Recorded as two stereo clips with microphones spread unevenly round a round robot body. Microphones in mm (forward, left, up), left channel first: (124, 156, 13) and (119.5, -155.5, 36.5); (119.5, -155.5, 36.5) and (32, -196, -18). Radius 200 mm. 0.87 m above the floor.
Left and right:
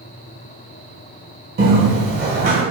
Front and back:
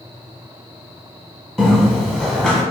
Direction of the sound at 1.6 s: 35° right.